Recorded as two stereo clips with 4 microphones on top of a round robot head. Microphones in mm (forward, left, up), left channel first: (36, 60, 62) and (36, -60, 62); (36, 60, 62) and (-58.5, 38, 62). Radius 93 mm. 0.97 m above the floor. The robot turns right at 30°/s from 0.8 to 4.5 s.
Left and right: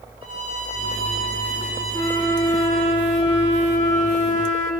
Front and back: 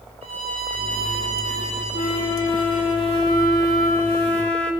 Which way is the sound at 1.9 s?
15° left.